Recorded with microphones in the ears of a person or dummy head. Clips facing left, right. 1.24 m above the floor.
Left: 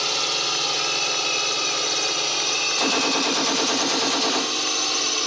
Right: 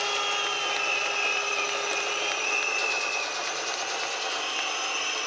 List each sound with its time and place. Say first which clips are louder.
0.0 s a drone: left 2 dB; 55° left (ahead or behind)
2.8 s a gunshot: left 10 dB; 80° left